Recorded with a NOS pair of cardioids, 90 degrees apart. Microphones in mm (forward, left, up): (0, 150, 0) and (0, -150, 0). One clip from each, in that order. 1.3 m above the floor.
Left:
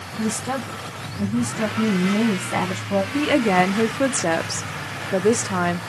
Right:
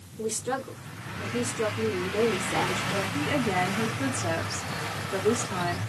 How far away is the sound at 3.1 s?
About 0.7 m.